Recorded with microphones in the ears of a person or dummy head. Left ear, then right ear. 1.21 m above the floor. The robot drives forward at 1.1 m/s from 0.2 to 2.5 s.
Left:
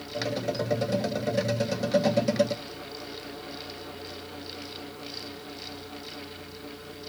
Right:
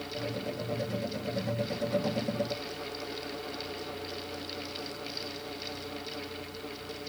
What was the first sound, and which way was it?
Only background noise.